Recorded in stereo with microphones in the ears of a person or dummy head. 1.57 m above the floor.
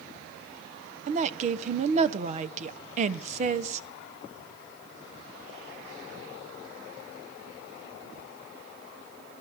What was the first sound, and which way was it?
A woman speaking, 45° right (ahead or behind).